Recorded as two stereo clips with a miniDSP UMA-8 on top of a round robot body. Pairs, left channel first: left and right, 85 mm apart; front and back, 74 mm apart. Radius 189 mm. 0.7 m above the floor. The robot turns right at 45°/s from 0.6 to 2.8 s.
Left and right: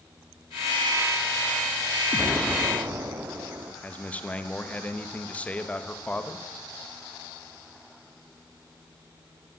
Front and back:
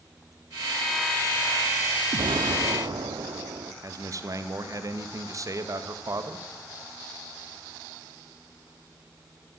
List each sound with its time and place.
2.1 s an explosion: 175° left, 1.0 m; by 3.7 s 155° right, 1.0 m
3.8 s a man speaking: 160° left, 1.3 m